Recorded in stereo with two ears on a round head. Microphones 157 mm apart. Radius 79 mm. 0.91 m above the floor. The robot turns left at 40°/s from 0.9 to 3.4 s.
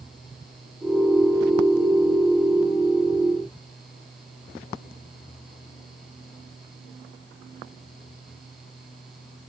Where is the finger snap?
I don't hear a finger snap.